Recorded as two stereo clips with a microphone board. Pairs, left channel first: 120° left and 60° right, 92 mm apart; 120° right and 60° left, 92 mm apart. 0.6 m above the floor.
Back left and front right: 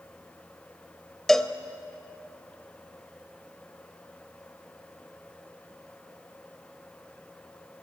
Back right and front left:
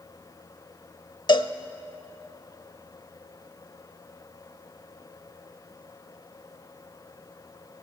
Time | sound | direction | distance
1.3 | a cowbell | 155° right | 0.9 m